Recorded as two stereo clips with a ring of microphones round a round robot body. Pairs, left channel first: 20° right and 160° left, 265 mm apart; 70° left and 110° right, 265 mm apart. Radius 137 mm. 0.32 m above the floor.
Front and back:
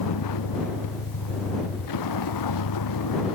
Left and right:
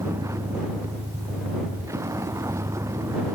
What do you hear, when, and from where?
0.0 s a vehicle: 35° right